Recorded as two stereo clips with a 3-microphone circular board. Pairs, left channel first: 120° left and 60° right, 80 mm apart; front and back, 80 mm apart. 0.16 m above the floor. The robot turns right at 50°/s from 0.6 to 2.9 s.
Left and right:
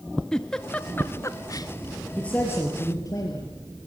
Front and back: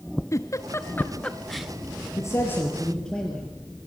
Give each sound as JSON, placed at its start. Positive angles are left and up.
{"t": 0.3, "sound": "a giggle", "azimuth_deg": 40, "distance_m": 1.0}
{"t": 2.2, "sound": "a man speaking", "azimuth_deg": 40, "distance_m": 3.5}